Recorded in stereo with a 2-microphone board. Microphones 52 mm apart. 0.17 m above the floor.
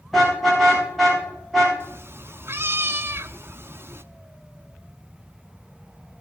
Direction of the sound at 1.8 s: 45° right (ahead or behind).